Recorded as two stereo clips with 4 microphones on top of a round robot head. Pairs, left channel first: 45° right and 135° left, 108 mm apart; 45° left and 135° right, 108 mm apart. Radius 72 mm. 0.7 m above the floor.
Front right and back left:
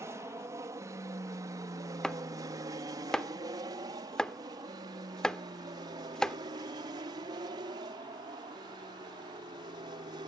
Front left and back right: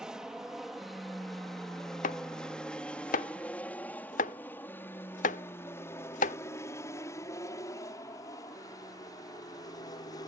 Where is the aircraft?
150° left; by 10.3 s 90° left.